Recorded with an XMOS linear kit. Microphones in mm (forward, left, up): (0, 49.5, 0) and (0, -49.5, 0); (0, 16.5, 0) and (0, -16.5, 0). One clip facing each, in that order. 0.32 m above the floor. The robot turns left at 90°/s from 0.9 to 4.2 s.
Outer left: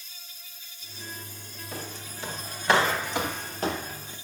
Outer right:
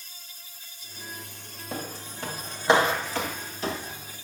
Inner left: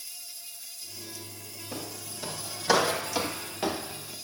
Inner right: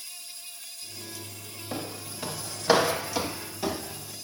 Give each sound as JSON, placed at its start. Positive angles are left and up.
{"t": 0.0, "sound": "an insect", "azimuth_deg": -45, "distance_m": 2.0}
{"t": 1.7, "sound": "footsteps", "side_deg": -85, "distance_m": 3.5}